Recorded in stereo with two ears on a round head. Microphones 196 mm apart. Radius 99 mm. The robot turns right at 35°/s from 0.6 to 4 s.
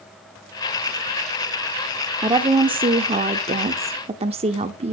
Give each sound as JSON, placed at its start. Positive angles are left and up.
{"t": 2.2, "sound": "a woman speaking", "side_deg": -20, "distance_m": 0.9}